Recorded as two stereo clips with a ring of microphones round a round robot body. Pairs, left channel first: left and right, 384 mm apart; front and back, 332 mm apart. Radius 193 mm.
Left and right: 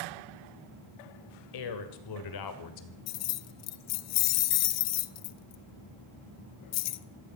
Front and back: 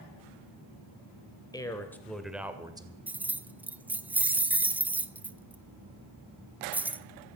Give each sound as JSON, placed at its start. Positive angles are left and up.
{"t": 1.5, "sound": "a man speaking", "azimuth_deg": 75, "distance_m": 2.5}
{"t": 3.1, "sound": "keys jangling", "azimuth_deg": 95, "distance_m": 0.7}